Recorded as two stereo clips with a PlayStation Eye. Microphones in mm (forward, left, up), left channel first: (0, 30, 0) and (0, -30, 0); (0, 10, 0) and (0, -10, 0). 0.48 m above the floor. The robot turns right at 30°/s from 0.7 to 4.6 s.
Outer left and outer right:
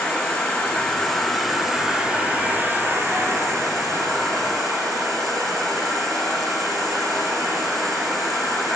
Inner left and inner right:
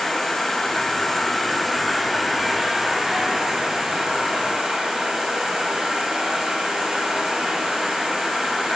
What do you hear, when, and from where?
0.0 s an insect: 160° left, 5 m; by 8.8 s 85° right, 5 m